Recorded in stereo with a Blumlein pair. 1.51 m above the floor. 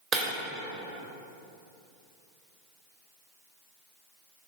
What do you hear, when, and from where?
0.1 s breaking glass: 30° right, 2.5 m